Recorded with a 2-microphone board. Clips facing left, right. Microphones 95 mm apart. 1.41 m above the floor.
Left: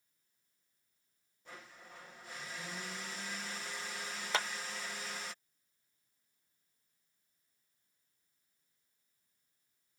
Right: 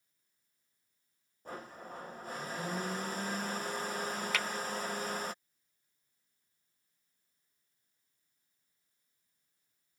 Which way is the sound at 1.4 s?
45° right (ahead or behind).